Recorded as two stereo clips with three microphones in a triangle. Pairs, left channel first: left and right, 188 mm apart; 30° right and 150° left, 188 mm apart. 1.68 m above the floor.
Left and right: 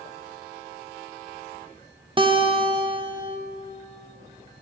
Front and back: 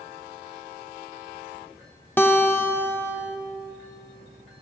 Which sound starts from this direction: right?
A guitar, at 2.2 s.